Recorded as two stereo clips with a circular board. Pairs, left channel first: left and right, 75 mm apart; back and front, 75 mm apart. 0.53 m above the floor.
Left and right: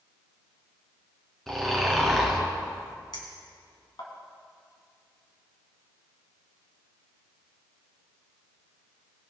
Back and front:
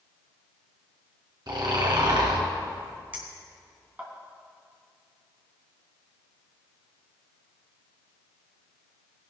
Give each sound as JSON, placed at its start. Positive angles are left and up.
{"t": 1.5, "sound": "snoring", "azimuth_deg": 5, "distance_m": 2.5}
{"t": 3.1, "sound": "a clink", "azimuth_deg": 70, "distance_m": 2.5}